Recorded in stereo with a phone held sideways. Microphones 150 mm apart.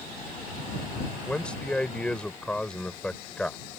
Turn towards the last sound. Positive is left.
turn(degrees=5)  # may be behind; listen again after turning